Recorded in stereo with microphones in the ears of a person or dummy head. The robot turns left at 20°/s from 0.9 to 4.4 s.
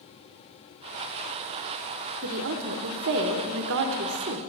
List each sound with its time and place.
2.2 s a woman speaking: 80° right, 1.0 m; by 4.4 s 125° right, 1.0 m